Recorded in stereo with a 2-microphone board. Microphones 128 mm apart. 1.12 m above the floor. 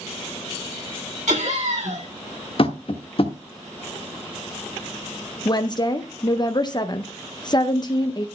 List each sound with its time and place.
1.3 s laughter: 75° right (ahead or behind), 8.5 m
2.6 s tapping: 50° left (ahead or behind), 0.9 m
5.5 s a woman speaking: 35° left (ahead or behind), 0.6 m